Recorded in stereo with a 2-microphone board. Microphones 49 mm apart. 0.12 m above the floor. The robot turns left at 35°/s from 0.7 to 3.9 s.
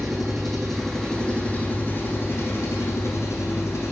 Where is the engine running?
Straight behind, 3 m; by 3.9 s 65° left, 3 m.